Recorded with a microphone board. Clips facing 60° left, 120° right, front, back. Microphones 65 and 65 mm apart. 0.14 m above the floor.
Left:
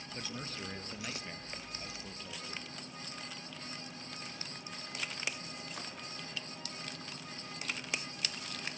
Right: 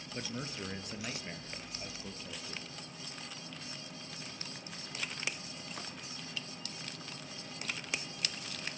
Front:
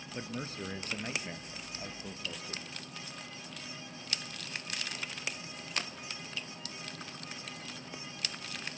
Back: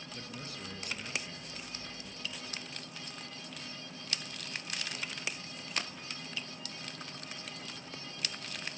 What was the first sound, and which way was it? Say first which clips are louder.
A man speaking: right 3 dB, front 7 dB; 50° right.